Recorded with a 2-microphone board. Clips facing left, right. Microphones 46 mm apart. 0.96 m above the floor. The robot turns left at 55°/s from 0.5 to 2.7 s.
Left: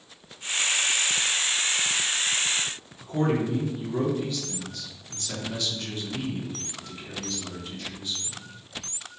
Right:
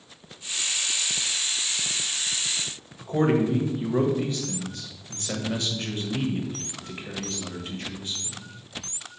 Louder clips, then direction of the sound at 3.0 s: Right 3 dB; 40° right (ahead or behind).